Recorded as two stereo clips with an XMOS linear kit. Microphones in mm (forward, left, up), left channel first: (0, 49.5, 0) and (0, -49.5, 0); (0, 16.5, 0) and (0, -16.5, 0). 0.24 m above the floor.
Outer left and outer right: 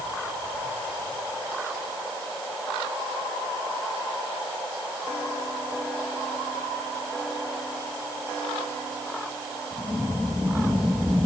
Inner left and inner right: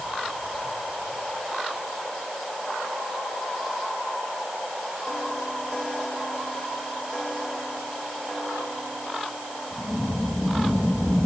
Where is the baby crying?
I don't hear a baby crying.